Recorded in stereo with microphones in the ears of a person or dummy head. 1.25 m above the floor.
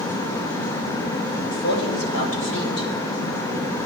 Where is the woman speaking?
75° left (ahead or behind), 4 m.